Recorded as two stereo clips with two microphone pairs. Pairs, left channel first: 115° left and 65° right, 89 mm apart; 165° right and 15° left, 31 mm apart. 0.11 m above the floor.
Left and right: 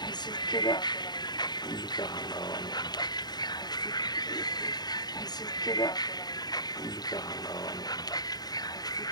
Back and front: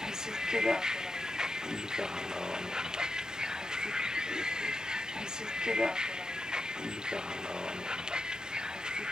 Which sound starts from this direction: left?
A vehicle, at 0.0 s.